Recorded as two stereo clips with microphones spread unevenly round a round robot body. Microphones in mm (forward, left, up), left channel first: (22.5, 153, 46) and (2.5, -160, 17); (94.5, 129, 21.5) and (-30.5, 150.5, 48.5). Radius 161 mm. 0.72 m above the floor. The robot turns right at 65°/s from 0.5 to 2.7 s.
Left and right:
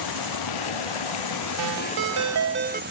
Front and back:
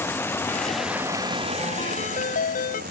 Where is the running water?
65° left; by 2.9 s 155° right.